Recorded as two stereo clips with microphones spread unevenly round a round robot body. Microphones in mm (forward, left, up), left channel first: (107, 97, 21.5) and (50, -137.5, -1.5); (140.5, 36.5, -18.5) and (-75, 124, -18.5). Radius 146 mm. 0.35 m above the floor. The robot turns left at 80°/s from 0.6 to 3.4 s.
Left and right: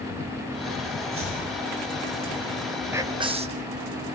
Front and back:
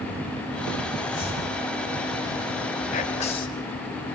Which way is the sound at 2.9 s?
40° right.